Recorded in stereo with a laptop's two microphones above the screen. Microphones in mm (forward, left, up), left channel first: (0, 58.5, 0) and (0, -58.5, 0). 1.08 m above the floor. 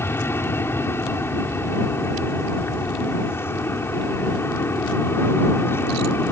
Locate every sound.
0.0 s an aircraft: 20° left (ahead or behind)